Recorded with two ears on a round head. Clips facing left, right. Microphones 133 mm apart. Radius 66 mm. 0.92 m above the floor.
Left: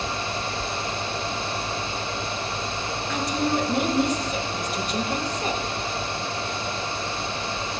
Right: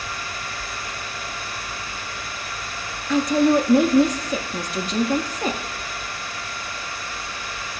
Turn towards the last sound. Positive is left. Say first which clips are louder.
# right 9 dB
turn(degrees=-65)  # may be behind; listen again after turning